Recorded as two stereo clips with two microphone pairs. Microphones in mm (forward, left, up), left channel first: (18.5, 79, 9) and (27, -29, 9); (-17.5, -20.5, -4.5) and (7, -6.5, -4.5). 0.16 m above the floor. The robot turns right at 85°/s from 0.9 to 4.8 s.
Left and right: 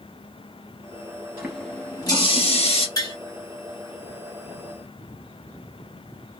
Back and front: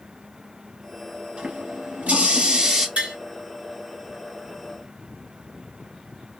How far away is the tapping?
About 2.5 m.